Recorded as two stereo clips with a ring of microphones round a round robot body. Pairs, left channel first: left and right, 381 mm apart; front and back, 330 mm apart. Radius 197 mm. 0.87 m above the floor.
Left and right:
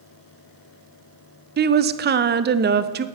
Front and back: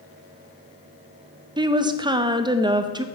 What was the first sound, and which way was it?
A woman speaking, 120° right.